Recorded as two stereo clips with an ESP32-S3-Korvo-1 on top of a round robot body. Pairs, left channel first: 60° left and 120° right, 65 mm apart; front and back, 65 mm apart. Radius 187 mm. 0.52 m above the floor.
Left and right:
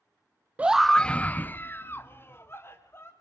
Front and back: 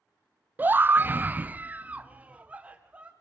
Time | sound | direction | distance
0.6 | a scream | 155° right | 0.6 m